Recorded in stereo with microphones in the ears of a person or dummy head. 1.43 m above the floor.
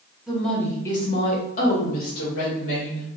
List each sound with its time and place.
0.3 s a woman speaking: centre (ahead or behind), 1.1 m; by 3.1 s 80° left, 1.7 m